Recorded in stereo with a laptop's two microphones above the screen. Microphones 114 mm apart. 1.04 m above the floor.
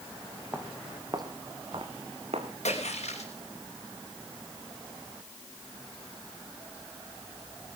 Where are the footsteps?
20° right (ahead or behind), 2.5 m; by 2.5 s 65° right (ahead or behind), 2.5 m.